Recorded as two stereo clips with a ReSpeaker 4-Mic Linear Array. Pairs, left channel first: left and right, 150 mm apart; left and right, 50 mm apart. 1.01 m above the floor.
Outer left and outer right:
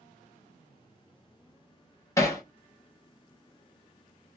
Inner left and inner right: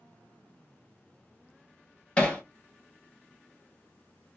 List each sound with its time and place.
2.2 s hammering: 20° left (ahead or behind), 1.2 m